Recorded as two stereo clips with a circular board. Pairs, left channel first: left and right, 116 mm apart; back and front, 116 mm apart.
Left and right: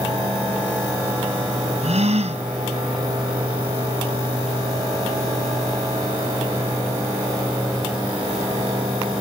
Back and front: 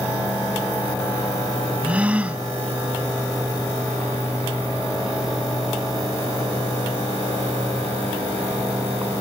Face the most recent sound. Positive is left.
turn(degrees=-80)